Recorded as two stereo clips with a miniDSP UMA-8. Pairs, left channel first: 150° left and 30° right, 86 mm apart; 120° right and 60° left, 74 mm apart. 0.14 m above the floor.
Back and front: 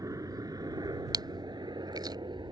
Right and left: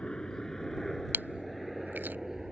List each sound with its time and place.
0.0 s a helicopter: 45° right; by 2.5 s 25° right
1.1 s chewing: straight ahead